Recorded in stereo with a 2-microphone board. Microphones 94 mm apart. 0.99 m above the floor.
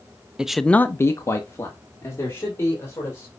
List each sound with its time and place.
0.4 s a man speaking: 10° right (ahead or behind), 0.7 m; by 3.3 s 25° left (ahead or behind), 4 m